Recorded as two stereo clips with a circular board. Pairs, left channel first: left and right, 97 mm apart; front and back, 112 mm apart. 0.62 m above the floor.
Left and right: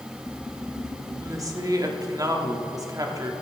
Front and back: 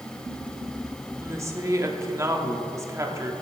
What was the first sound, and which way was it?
A woman speaking, 125° right.